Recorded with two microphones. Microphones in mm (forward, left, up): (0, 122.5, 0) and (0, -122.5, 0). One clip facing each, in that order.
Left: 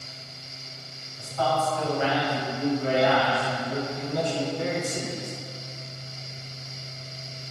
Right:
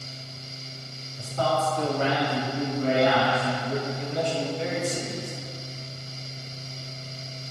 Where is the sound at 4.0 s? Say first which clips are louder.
Even; 50° left (ahead or behind), 2.5 m.